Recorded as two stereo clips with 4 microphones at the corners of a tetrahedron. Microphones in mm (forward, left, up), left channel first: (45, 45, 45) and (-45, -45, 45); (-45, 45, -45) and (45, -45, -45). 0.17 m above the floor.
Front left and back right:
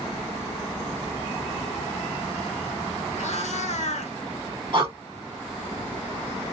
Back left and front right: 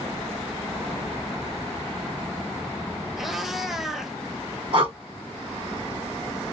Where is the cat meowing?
40° left, 0.8 m.